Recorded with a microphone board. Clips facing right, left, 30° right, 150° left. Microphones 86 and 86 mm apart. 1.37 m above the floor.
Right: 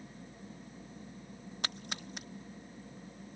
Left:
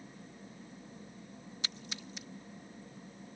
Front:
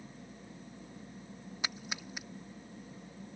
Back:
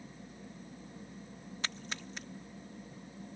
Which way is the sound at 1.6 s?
110° right.